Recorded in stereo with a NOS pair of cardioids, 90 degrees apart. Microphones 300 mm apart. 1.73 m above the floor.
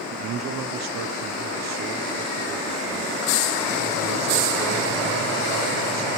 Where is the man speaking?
60° right, 1.2 m.